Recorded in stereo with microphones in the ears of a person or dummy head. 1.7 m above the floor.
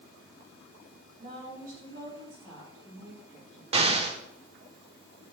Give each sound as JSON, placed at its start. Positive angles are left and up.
{"t": 1.2, "sound": "a woman speaking", "side_deg": -40, "distance_m": 3.0}
{"t": 3.7, "sound": "an explosion", "side_deg": -30, "distance_m": 0.5}